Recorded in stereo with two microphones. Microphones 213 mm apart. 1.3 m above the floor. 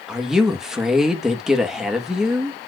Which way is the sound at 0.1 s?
Centre (ahead or behind).